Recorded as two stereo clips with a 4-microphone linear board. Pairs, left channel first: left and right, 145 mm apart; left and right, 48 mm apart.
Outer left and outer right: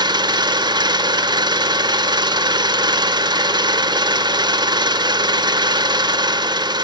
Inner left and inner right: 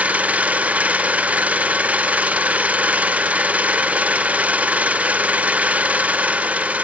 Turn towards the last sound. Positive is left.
turn(degrees=-30)  # may be behind; listen again after turning